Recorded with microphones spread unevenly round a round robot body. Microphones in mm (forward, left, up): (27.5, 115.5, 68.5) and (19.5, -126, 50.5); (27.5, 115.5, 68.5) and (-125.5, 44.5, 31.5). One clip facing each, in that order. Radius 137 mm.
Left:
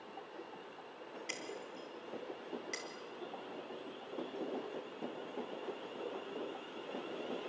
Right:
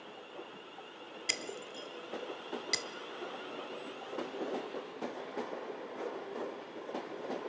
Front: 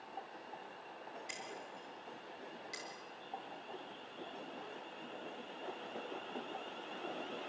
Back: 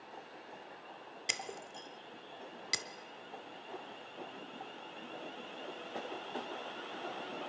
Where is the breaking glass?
135° right, 0.6 m.